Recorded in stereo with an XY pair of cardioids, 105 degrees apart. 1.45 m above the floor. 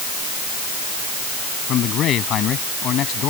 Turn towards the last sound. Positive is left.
turn(degrees=70)